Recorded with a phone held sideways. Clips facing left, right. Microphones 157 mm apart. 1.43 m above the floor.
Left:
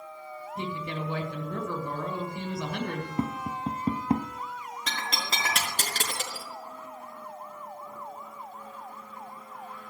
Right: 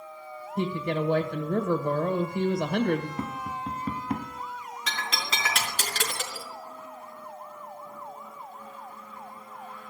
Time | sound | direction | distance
0.6 | a woman speaking | 55° right (ahead or behind) | 1.7 m
3.2 | tapping | 25° left (ahead or behind) | 0.8 m
4.9 | breaking glass | 40° left (ahead or behind) | 4 m